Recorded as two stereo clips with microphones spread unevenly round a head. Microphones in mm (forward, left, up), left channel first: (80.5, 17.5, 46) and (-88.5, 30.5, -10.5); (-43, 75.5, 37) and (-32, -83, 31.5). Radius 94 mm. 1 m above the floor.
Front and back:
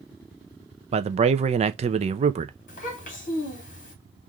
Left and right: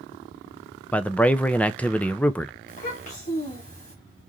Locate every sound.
0.9 s a man speaking: 175° left, 0.6 m
2.7 s a child speaking: 45° left, 2 m